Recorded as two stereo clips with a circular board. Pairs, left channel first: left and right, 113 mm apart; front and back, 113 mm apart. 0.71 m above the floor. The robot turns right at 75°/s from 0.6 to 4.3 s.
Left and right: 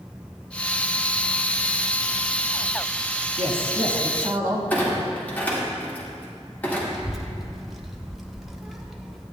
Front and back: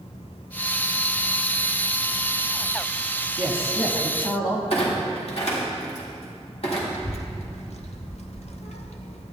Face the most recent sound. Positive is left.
turn(degrees=0)